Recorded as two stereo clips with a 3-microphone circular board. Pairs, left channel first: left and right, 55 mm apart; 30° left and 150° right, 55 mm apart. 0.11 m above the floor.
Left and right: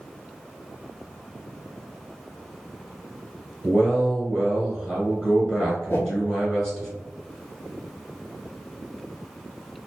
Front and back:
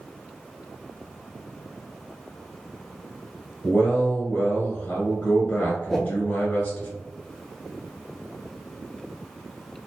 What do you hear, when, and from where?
3.6 s a man speaking: 10° left, 1.2 m
5.9 s a whoosh: 110° left, 0.5 m